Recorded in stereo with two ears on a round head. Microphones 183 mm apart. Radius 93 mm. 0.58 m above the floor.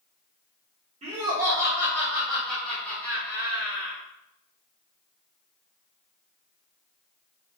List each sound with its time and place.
1.0 s laughter: 30° right (ahead or behind), 1.6 m; by 4.0 s 25° left (ahead or behind), 2.5 m